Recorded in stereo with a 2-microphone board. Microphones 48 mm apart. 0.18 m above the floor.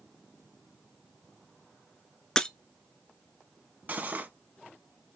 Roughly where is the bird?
I don't hear a bird.